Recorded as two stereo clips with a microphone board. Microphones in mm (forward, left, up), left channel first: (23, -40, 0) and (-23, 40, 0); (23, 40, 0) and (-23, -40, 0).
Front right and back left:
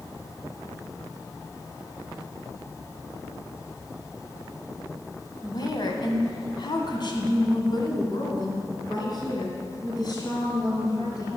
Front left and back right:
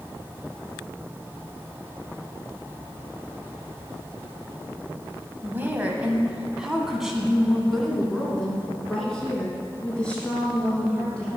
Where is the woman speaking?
60° right, 1.3 m; by 11.4 s 15° right, 4.5 m.